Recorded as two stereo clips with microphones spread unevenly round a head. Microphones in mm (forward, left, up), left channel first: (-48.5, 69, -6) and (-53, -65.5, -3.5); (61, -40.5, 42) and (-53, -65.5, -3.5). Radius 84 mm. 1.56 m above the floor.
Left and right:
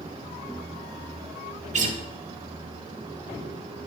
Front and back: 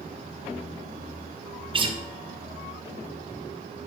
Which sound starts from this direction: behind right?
A guitar, at 1.7 s.